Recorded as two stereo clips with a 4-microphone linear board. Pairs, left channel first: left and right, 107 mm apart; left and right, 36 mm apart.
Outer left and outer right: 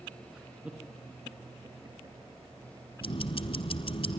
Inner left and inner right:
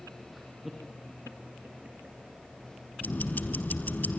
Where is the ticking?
55° left (ahead or behind), 1.5 m.